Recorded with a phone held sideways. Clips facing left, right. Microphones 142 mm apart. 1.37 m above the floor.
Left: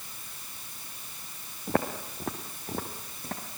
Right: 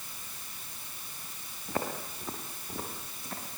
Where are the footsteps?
65° left (ahead or behind), 3 m; by 3.4 s 55° left (ahead or behind), 5 m.